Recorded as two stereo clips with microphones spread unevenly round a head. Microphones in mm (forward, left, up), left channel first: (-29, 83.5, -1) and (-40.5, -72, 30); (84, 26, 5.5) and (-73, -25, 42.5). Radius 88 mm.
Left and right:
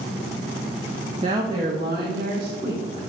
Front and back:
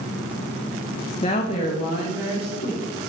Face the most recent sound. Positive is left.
turn(degrees=-35)